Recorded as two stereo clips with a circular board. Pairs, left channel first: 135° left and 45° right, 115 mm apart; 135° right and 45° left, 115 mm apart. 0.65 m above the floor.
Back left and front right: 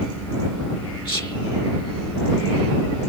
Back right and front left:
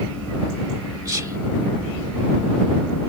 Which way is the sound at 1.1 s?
95° left.